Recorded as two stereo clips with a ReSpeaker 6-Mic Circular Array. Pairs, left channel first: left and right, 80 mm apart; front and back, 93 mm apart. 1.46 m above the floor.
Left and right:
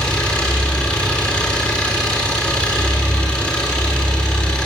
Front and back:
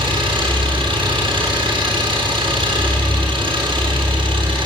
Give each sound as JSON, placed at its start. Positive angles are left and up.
{"t": 0.0, "sound": "an engine running", "azimuth_deg": 165, "distance_m": 7.0}